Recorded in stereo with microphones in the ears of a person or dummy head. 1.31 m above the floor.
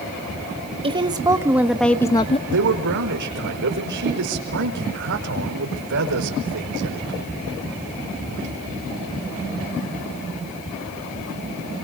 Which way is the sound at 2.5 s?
65° right (ahead or behind).